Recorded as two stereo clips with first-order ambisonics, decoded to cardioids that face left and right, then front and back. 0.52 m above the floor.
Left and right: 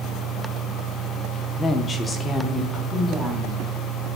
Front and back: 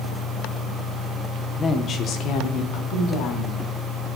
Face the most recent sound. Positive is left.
turn(degrees=10)